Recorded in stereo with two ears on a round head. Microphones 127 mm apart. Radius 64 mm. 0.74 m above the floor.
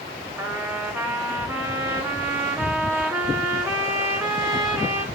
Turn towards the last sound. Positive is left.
turn(degrees=-20)  # may be behind; listen again after turning